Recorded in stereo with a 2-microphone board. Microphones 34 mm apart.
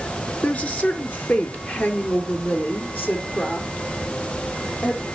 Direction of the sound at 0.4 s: 45° left (ahead or behind).